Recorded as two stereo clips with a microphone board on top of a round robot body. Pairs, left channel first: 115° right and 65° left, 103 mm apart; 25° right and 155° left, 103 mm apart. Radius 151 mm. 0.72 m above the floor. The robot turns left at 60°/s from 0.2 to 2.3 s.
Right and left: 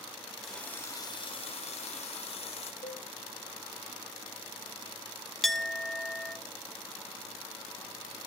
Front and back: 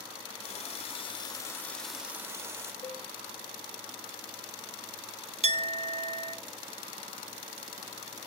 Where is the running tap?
25° right, 2 m; by 2.7 s 135° right, 2 m.